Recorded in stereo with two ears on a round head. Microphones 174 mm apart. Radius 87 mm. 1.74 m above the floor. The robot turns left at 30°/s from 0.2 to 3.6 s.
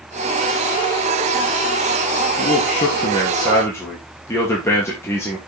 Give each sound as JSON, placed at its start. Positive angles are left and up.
{"t": 2.4, "sound": "a man speaking", "azimuth_deg": 50, "distance_m": 2.5}